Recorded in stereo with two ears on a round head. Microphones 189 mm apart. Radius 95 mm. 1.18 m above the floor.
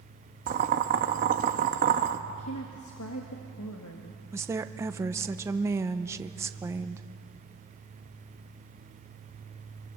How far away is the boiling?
About 1.0 m.